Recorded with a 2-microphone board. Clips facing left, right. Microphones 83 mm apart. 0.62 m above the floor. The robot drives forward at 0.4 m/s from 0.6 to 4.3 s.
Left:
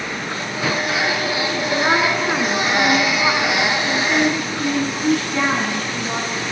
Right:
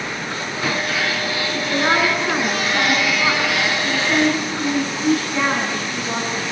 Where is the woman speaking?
Centre (ahead or behind), 6 m.